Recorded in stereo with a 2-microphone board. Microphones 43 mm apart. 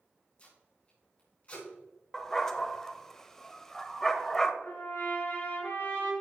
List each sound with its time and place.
0.4 s tape being pulled: 30° left (ahead or behind), 3.5 m
2.1 s a dog barking: 10° left (ahead or behind), 0.7 m
4.6 s a trumpet: 60° left (ahead or behind), 3.5 m